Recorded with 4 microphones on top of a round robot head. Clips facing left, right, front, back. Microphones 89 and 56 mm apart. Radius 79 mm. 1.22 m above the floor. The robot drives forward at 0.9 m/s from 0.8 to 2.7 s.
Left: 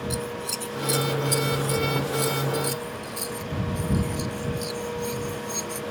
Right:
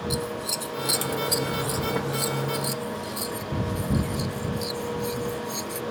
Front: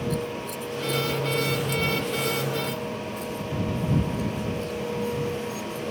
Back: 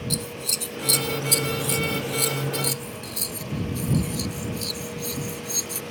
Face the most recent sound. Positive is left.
turn(degrees=-175)